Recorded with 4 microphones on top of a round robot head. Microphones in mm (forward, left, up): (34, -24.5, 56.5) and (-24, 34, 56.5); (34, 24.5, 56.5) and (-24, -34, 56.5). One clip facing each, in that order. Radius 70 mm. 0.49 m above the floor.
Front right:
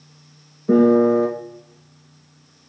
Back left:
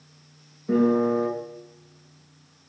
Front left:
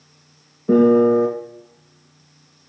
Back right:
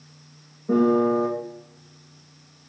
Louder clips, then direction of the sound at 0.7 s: Front right 7 dB, front left 6 dB; 10° left.